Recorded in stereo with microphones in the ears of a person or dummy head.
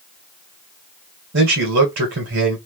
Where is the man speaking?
60° right (ahead or behind), 2.0 m.